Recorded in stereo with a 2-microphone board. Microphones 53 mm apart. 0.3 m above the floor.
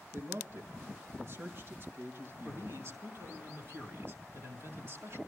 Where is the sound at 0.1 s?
50° right (ahead or behind), 3.5 m.